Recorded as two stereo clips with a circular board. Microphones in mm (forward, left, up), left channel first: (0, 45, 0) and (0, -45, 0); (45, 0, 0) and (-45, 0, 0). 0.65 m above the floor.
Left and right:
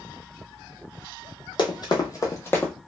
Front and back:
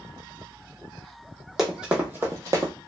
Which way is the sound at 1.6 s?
95° left.